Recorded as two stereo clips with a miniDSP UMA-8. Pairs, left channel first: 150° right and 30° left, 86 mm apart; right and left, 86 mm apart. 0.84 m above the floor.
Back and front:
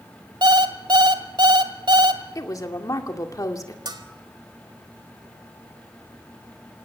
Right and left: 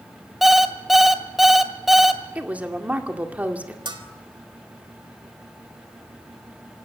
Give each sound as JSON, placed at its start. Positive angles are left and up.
{"t": 0.4, "sound": "an alarm clock", "azimuth_deg": 0, "distance_m": 1.5}
{"t": 2.4, "sound": "a woman speaking", "azimuth_deg": 165, "distance_m": 2.0}
{"t": 3.9, "sound": "a bell", "azimuth_deg": 65, "distance_m": 2.5}